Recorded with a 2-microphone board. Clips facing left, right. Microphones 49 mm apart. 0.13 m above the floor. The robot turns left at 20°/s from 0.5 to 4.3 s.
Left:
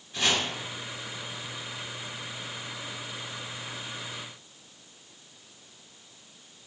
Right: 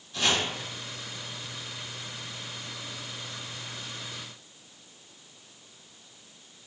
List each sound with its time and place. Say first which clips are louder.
0.1 s chopping: even; 20° left (ahead or behind), 2.0 m